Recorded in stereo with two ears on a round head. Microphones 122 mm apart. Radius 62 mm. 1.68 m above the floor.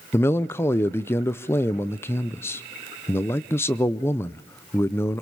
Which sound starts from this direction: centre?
A man speaking, at 0.1 s.